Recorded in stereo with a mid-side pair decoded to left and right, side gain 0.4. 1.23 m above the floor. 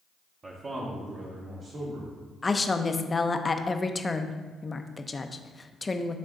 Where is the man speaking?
40° right, 1.0 m; by 2.2 s 70° right, 3 m.